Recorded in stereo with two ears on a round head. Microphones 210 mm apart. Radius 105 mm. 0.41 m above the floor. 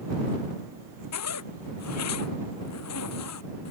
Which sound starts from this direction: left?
A zipper, at 1.1 s.